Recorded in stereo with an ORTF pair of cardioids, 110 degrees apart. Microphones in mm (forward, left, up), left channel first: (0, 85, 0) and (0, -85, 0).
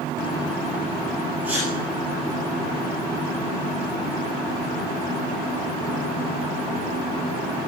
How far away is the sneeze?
About 7.5 m.